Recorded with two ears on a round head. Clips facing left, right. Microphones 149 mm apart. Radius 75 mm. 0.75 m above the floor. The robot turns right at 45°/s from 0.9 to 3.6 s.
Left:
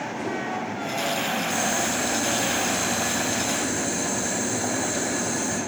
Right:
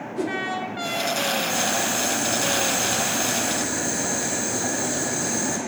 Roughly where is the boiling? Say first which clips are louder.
Even; behind.